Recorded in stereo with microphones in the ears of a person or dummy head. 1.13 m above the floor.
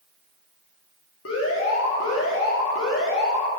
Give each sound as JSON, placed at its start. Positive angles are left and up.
{"t": 1.2, "sound": "an alarm", "side_deg": 75, "distance_m": 3.0}